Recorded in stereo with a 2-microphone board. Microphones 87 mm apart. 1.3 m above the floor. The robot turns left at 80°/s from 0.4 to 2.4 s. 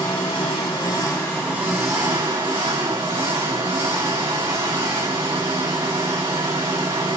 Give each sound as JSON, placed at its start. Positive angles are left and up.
{"t": 0.0, "sound": "an engine running", "azimuth_deg": 85, "distance_m": 1.9}